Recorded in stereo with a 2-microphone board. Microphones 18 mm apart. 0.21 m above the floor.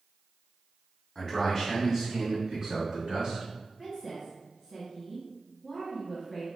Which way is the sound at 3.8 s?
20° right (ahead or behind).